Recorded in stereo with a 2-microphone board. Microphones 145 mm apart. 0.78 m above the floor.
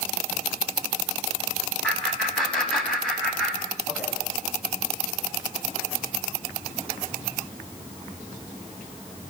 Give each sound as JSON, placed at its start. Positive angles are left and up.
{"t": 1.8, "sound": "laughter", "side_deg": 5, "distance_m": 7.5}